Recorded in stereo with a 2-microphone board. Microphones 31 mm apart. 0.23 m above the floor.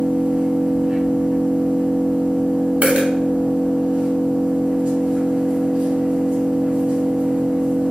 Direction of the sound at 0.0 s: 30° right (ahead or behind).